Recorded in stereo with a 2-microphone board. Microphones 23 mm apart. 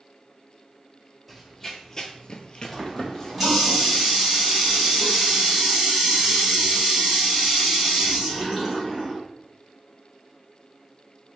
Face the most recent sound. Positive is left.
turn(degrees=-5)  # may be behind; listen again after turning